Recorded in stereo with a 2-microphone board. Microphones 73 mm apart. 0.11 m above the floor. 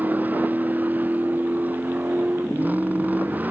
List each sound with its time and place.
0.0 s a vehicle: 25° right (ahead or behind)